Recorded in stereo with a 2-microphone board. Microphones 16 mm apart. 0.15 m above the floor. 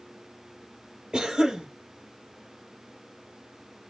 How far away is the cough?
About 3.5 m.